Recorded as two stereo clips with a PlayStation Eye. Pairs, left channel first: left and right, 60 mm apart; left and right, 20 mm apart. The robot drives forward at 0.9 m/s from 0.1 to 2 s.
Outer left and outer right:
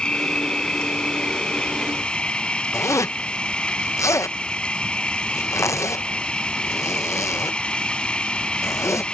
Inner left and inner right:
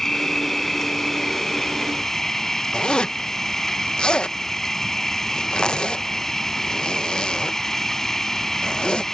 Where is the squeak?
I don't hear a squeak.